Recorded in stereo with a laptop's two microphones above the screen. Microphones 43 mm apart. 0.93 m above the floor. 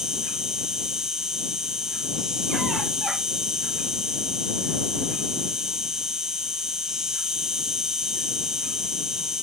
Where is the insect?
10° right (ahead or behind).